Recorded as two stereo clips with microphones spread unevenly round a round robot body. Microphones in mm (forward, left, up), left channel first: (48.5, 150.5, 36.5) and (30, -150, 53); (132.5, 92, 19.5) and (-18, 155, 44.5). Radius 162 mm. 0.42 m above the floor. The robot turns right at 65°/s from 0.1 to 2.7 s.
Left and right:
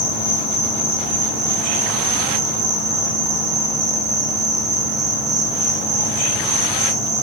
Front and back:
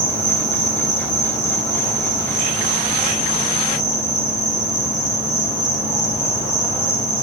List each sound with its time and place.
0.0 s an insect: 130° left, 0.8 m; by 7.2 s 60° right, 0.8 m